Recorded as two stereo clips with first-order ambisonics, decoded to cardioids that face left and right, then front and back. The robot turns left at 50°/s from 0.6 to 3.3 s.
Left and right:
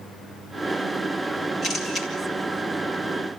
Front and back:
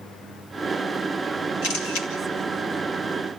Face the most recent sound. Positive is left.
turn(degrees=-60)